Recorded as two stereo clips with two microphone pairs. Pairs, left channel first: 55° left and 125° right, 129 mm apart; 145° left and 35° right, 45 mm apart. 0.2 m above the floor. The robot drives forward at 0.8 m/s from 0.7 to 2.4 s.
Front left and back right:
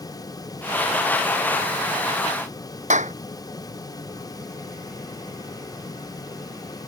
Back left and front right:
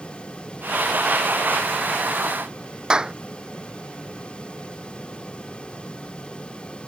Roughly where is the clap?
Right.